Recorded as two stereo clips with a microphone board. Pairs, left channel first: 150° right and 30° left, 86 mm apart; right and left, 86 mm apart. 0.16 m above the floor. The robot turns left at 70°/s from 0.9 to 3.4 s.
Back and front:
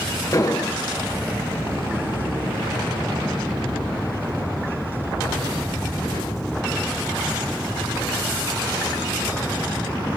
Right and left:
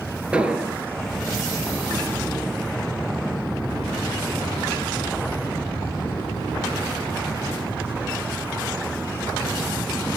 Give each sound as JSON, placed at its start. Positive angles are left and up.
{"t": 0.3, "sound": "an explosion", "azimuth_deg": 165, "distance_m": 1.3}